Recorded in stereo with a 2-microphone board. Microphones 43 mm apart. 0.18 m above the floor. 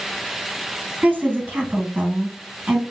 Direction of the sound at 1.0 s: 40° right (ahead or behind).